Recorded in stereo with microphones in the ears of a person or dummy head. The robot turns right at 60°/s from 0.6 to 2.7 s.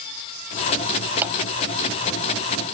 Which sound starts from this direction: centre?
A clap, at 1.2 s.